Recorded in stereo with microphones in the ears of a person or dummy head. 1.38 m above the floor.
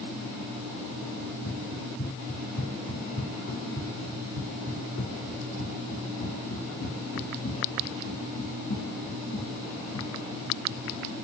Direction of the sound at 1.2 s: 65° left (ahead or behind).